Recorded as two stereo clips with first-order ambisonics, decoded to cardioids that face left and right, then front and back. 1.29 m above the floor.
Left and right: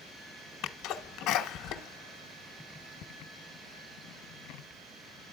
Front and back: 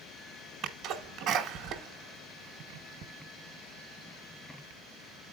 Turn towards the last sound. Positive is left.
turn(degrees=135)